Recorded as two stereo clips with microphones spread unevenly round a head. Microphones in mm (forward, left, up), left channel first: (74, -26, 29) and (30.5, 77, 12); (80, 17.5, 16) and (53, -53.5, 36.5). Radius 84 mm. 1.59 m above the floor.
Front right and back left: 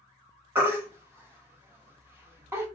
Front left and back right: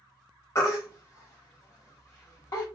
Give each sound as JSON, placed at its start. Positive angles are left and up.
{"t": 0.6, "sound": "a baby crying", "azimuth_deg": 55, "distance_m": 0.9}